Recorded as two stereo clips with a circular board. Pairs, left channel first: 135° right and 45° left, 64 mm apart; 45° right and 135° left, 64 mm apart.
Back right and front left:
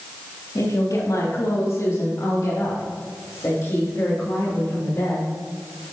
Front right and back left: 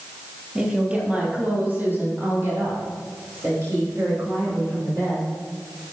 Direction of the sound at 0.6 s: 150° right.